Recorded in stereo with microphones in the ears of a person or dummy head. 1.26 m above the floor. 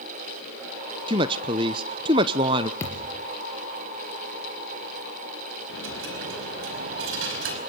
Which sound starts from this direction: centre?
A thud, at 2.8 s.